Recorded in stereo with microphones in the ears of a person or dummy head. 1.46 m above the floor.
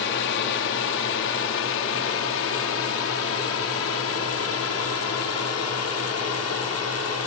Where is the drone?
65° left (ahead or behind); by 7.3 s 75° left (ahead or behind).